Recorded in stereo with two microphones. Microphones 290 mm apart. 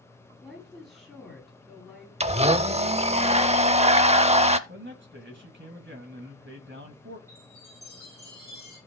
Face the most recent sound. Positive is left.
turn(degrees=-10)  # may be behind; listen again after turning